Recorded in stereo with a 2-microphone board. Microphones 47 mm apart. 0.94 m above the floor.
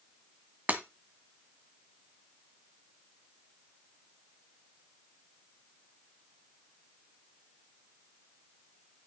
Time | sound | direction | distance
0.7 | breaking glass | 40° right (ahead or behind) | 1.3 m